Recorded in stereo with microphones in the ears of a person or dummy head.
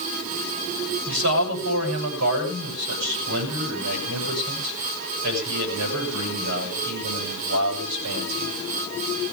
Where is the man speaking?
60° right (ahead or behind), 8.5 m.